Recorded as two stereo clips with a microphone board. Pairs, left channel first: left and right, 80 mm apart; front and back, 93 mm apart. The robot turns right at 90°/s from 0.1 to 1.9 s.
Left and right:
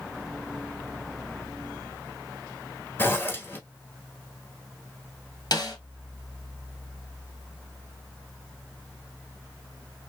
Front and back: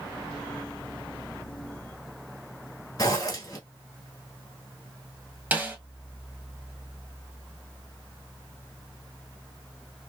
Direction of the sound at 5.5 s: 110° left.